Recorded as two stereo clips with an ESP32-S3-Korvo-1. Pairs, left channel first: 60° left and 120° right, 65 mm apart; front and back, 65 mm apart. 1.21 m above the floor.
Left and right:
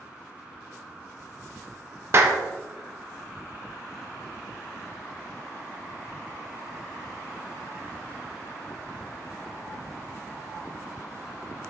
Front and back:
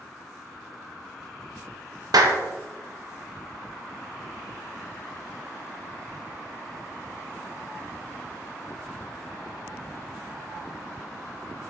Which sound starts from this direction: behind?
A clap, at 2.1 s.